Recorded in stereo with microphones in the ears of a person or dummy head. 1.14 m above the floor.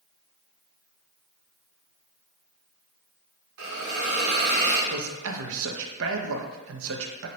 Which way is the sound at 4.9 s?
70° right (ahead or behind).